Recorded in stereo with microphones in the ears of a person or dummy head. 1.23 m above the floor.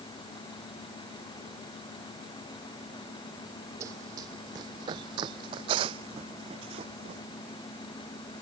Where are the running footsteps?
20° right (ahead or behind); by 7.2 s 35° right (ahead or behind).